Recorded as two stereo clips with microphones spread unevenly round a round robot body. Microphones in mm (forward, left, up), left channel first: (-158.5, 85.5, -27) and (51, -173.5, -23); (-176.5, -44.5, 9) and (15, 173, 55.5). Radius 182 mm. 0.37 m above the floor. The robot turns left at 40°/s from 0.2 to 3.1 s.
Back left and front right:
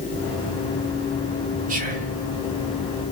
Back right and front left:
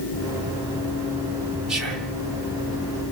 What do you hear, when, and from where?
1.7 s whispering: 60° right, 0.9 m; by 2.1 s 75° right, 0.9 m